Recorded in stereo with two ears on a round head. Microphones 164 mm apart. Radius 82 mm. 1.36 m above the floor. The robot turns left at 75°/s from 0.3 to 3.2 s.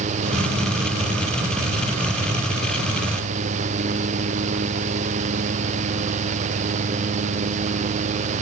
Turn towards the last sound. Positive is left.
No sound to turn to.